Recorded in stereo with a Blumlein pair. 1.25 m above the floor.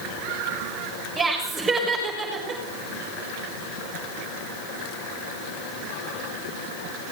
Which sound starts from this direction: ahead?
Laughter, at 1.2 s.